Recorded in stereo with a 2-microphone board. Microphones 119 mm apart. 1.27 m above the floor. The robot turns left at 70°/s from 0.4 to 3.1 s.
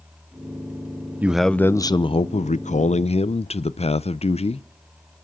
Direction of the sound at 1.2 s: 165° right.